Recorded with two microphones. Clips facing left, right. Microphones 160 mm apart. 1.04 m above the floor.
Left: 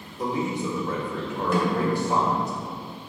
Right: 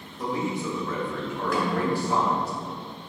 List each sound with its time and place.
0.2 s a man speaking: 20° left (ahead or behind), 1.9 m
1.5 s a snare drum: 25° left (ahead or behind), 2.5 m